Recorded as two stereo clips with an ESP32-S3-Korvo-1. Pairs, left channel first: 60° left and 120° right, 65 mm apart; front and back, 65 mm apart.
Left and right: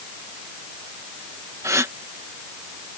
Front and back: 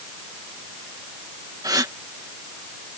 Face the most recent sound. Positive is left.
turn(degrees=-160)